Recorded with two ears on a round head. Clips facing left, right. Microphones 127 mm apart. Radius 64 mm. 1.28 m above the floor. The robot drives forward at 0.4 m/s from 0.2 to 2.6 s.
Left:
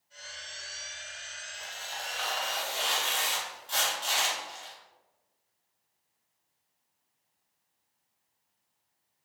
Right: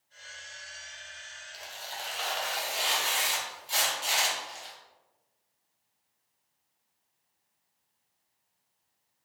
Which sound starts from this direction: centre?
Tearing paper, at 1.5 s.